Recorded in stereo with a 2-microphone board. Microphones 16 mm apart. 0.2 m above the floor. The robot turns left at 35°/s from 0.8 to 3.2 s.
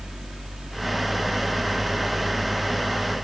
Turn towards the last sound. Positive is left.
No sound to turn to.